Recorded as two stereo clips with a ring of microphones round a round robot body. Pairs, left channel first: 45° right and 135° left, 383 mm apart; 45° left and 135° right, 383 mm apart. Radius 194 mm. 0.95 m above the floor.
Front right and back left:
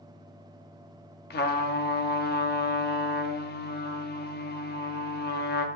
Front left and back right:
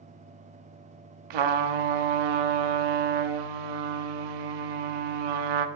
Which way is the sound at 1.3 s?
110° right.